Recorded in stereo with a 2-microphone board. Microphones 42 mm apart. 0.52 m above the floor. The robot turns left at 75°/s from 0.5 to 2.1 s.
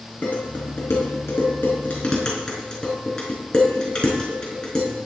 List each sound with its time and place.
0.2 s dishes clattering: 45° left (ahead or behind), 4.5 m; by 4.9 s 15° left (ahead or behind), 4.5 m